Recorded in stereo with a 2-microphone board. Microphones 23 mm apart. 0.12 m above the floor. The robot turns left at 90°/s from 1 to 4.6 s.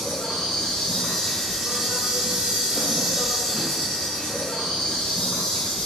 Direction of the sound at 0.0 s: 45° left.